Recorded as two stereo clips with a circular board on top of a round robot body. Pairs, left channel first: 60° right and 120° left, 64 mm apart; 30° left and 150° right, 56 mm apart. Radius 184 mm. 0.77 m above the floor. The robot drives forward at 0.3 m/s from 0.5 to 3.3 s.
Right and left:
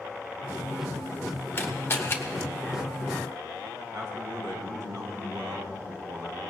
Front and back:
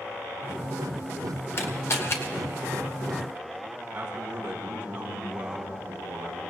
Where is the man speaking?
150° left, 4 m.